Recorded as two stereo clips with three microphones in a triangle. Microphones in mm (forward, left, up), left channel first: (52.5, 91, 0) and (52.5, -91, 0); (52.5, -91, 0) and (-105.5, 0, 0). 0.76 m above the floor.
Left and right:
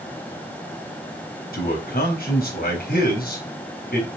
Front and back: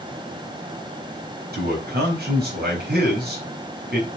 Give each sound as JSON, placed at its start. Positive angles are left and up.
{"t": 1.5, "sound": "a man speaking", "azimuth_deg": 120, "distance_m": 4.5}